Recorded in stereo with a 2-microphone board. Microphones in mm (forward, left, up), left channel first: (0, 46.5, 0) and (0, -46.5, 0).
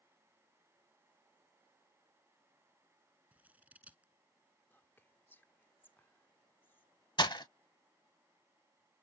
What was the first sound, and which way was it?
Scissors, 15° right (ahead or behind).